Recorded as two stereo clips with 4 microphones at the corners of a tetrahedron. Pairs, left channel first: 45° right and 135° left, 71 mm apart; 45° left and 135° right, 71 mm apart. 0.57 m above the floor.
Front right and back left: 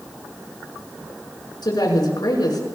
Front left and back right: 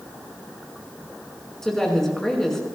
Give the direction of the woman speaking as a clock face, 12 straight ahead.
1 o'clock.